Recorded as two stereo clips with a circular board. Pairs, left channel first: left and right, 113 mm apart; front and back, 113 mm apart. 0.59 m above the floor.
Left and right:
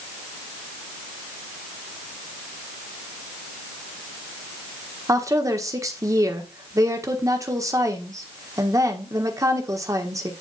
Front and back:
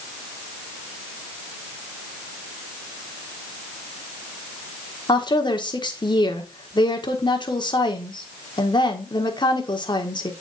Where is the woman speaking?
35° right, 1.3 m.